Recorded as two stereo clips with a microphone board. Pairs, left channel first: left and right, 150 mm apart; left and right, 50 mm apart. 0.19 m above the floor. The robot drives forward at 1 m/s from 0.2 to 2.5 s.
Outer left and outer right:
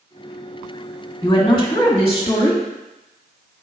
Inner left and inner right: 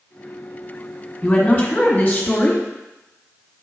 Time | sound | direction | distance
1.2 | a woman speaking | 25° left (ahead or behind) | 1.8 m